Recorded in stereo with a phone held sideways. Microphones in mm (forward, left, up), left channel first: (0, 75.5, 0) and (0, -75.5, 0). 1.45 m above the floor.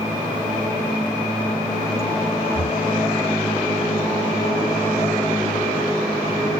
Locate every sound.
2.5 s breathing: 30° left (ahead or behind)